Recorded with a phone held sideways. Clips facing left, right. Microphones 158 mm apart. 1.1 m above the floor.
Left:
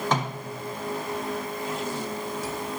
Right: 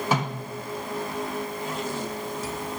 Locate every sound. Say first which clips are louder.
0.1 s a snare drum: right 1 dB; 10° right (ahead or behind), 5.5 m